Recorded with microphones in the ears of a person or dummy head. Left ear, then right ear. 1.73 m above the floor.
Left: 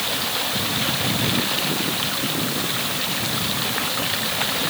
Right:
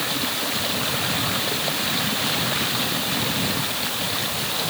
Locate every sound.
Only background noise.